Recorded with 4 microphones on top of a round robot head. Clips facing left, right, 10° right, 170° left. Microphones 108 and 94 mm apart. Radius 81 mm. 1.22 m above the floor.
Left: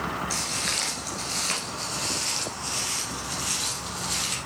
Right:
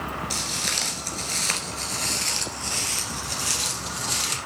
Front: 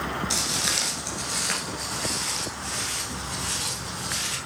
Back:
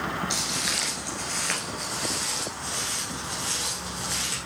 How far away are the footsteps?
About 1.3 m.